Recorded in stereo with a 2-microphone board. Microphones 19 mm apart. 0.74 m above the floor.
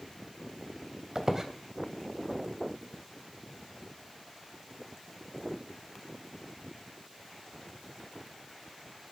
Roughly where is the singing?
No singing in this recording.